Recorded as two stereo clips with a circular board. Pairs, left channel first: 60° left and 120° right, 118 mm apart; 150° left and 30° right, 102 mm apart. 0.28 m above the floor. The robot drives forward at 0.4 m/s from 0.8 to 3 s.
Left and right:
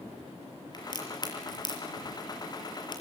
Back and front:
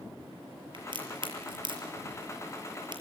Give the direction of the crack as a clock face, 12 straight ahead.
12 o'clock.